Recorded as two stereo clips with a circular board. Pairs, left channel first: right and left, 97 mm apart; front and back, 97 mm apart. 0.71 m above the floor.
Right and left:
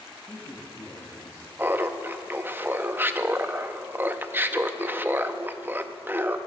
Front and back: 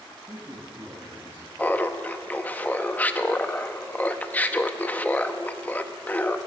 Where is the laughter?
50° left, 0.6 m.